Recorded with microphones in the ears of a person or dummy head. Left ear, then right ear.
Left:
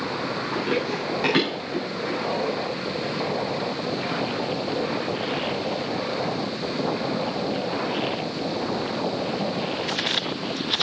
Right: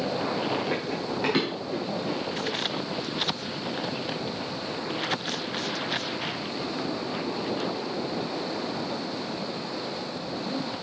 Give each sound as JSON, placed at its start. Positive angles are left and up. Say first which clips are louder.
{"t": 0.5, "sound": "running footsteps", "louder": "left 4 dB", "side_deg": -5, "distance_m": 4.0}